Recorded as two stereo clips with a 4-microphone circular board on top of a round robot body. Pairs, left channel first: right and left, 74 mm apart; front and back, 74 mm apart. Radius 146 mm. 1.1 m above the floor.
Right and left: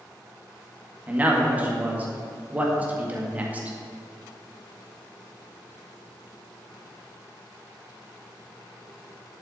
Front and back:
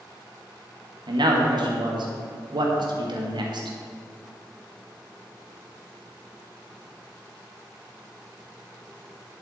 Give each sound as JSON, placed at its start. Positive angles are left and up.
{"t": 1.1, "sound": "a man speaking", "azimuth_deg": 160, "distance_m": 2.0}